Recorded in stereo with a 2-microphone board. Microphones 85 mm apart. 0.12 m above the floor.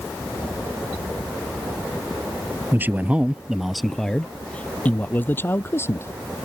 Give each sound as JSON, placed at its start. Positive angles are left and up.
{"t": 2.7, "sound": "a man speaking", "side_deg": -25}